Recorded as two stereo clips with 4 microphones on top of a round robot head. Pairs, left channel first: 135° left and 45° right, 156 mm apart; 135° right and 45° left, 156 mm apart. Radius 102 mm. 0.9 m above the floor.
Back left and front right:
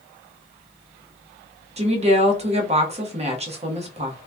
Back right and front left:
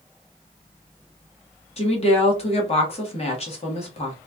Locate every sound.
1.8 s a woman speaking: 90° right, 1.4 m